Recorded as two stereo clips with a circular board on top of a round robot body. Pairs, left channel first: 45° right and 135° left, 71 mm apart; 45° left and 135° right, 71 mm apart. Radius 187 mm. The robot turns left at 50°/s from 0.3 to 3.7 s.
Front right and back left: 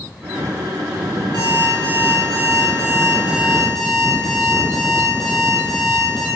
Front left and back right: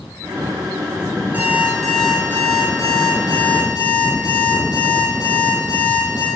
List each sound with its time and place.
1.3 s an alarm clock: 160° left, 5.5 m; by 6.3 s 40° left, 5.5 m